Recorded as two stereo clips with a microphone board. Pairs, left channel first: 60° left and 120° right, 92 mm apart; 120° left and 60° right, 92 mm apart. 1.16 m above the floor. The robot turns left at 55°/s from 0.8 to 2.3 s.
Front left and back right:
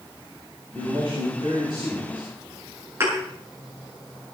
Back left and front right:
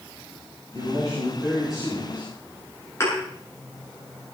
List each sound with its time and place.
0.7 s a man speaking: 95° right, 7.5 m; by 2.3 s 175° right, 7.5 m
3.0 s a thud: straight behind, 8.5 m